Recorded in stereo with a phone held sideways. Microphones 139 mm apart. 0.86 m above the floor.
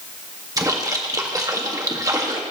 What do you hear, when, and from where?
0.6 s a splash: 25° right (ahead or behind), 1.7 m